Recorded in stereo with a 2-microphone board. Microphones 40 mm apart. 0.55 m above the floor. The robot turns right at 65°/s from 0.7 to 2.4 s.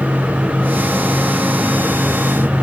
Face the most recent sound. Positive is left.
No sound to turn to.